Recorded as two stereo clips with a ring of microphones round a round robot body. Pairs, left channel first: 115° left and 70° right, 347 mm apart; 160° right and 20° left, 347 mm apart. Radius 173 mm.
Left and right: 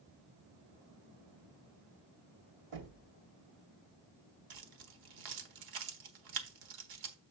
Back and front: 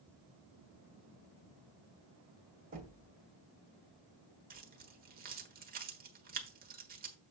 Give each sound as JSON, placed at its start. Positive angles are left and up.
{"t": 2.7, "sound": "knocking", "azimuth_deg": -45, "distance_m": 2.5}
{"t": 4.5, "sound": "keys jangling", "azimuth_deg": -45, "distance_m": 1.3}